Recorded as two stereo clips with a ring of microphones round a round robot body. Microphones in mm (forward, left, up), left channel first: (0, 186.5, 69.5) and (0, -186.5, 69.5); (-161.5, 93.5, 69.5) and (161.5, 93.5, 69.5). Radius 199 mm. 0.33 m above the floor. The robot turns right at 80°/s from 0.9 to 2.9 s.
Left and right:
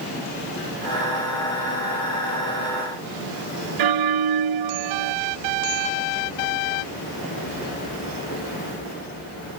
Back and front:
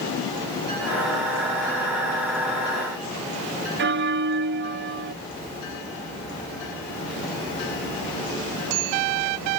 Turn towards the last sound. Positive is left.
turn(degrees=-60)